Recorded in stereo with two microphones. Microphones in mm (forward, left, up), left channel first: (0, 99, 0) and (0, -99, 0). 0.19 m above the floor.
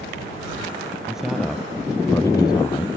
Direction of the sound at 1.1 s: 5° right (ahead or behind).